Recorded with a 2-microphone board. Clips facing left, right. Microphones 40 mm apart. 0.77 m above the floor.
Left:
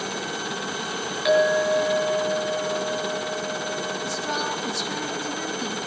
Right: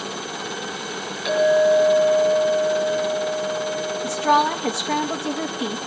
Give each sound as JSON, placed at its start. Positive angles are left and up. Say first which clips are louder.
{"t": 1.2, "sound": "a clink", "louder": "right 3 dB", "side_deg": 20, "distance_m": 5.0}
{"t": 4.0, "sound": "a woman speaking", "louder": "right 13 dB", "side_deg": -40, "distance_m": 0.6}